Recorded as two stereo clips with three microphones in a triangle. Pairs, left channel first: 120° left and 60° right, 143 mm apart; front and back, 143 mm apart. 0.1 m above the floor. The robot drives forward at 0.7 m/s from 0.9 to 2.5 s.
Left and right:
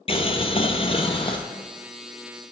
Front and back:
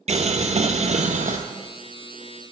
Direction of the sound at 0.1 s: 160° left.